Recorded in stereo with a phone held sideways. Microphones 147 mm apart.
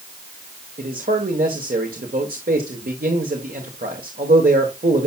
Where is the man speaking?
75° right (ahead or behind), 1.5 m.